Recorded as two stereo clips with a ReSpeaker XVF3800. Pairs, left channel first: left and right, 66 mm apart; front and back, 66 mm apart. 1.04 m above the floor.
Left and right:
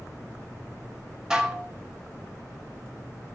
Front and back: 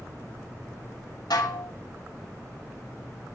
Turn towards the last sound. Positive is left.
turn(degrees=-10)